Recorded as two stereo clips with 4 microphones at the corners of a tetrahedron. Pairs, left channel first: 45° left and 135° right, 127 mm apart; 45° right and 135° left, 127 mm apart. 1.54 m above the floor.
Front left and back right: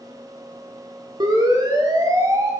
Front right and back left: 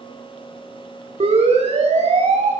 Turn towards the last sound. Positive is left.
turn(degrees=165)